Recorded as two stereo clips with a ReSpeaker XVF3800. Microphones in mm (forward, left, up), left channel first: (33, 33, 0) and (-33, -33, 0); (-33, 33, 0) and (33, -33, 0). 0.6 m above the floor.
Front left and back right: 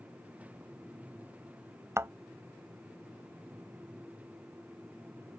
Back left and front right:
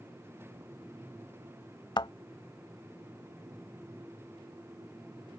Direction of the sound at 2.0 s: 165° left.